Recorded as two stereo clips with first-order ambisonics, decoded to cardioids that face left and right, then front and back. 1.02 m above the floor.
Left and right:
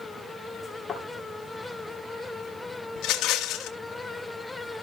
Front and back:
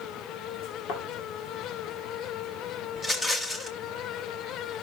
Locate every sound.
0.9 s a thud: 10° left, 2.5 m
3.0 s a rattle: 75° left, 1.2 m